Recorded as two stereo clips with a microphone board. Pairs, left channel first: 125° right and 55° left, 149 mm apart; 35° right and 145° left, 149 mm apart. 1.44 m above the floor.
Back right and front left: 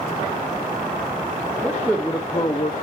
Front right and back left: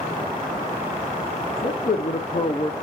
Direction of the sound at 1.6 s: 25° right.